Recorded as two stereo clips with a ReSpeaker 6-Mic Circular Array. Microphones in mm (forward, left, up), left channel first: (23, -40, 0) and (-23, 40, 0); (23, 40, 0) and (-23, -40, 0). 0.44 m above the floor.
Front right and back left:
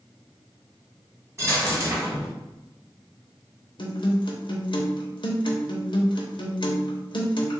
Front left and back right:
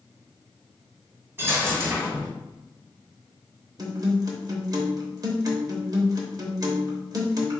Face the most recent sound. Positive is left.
turn(degrees=-80)